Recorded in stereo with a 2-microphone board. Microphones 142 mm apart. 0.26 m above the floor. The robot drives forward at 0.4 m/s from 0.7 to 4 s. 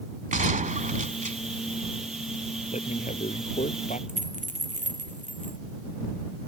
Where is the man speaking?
60° left (ahead or behind).